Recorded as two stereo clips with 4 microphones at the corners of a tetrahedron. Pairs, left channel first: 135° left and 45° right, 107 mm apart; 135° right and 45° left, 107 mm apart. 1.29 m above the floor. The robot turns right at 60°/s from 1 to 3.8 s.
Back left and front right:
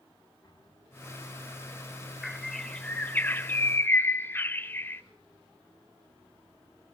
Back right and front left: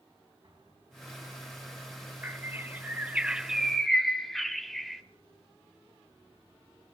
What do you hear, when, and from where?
0.4 s an explosion: 80° left, 9.5 m; by 1.5 s 110° left, 9.5 m
2.2 s a bird: 45° left, 1.0 m; by 5.0 s 140° left, 1.0 m